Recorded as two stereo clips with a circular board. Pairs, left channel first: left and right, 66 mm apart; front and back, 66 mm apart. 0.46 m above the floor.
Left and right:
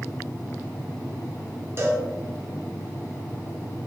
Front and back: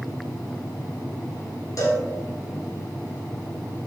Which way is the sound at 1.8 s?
40° right.